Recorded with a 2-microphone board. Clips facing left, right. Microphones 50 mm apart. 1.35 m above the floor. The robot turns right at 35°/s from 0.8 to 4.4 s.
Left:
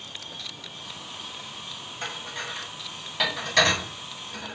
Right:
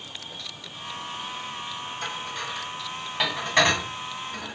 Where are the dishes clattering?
30° left (ahead or behind), 1.2 m; by 4.5 s 45° right (ahead or behind), 1.2 m.